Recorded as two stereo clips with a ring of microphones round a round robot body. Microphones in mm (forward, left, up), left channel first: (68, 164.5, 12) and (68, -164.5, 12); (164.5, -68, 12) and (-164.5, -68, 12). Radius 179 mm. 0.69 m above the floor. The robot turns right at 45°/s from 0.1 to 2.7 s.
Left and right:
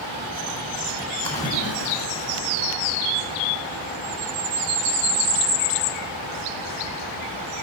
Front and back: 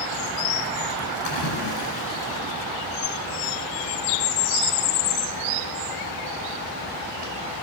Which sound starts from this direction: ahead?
A splash, at 1.2 s.